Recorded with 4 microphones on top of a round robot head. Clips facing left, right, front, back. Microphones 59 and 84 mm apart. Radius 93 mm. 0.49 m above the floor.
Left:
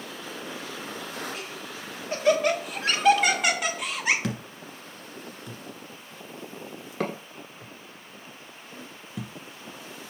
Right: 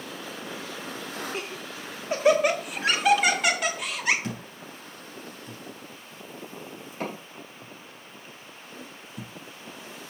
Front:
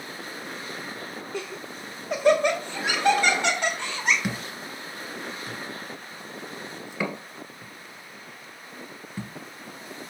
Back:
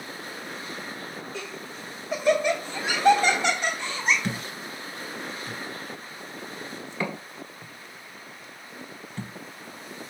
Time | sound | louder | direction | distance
1.3 | laughter | right 2 dB, front 2 dB | 30° right | 2 m
4.2 | a thud | left 3 dB, even | 80° left | 1.3 m